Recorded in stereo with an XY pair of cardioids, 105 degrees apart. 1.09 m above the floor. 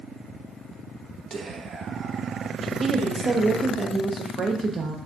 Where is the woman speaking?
35° right, 0.5 m.